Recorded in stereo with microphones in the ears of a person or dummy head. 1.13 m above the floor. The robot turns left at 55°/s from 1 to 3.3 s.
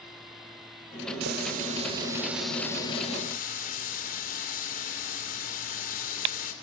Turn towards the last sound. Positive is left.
turn(degrees=130)